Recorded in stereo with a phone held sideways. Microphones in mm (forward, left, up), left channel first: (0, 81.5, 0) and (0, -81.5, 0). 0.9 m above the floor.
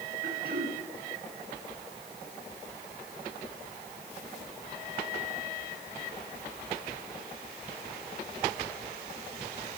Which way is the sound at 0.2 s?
65° right (ahead or behind).